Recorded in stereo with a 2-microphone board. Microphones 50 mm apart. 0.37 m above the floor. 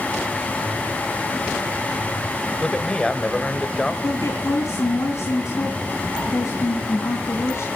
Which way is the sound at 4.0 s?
60° left (ahead or behind).